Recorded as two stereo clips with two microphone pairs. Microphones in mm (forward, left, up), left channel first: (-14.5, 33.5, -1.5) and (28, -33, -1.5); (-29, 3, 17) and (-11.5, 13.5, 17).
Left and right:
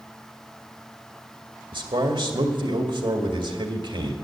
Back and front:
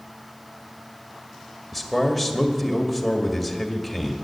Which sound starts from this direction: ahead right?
A man speaking, at 1.7 s.